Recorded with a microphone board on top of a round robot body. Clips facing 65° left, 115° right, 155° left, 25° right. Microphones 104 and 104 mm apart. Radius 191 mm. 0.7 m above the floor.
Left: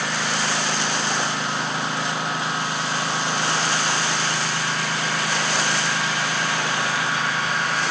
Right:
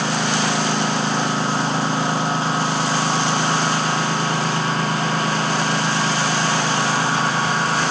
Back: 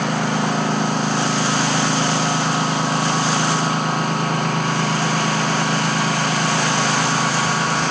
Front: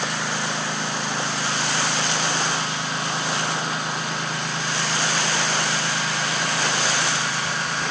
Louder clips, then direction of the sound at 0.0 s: Right 5 dB, back 7 dB; 165° right.